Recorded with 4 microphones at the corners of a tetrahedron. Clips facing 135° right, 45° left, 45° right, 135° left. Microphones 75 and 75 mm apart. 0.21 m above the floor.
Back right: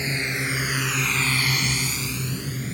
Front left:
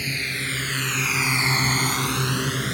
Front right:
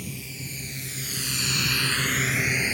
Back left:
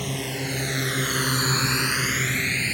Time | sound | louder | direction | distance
0.0 | a drone | back right 2 dB, back left 9 dB | 160° left | ?